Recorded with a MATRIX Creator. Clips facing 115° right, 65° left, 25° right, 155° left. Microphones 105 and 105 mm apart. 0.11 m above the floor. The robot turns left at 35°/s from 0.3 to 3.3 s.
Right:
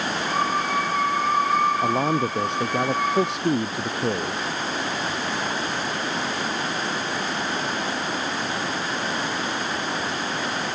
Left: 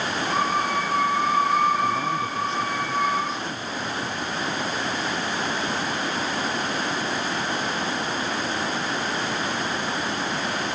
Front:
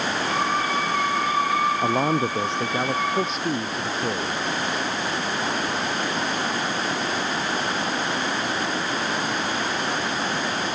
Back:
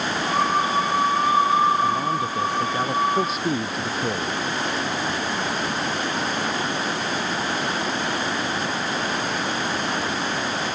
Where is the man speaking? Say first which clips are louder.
Right 3 dB, front 1 dB; 65° right; by 4.4 s 115° right.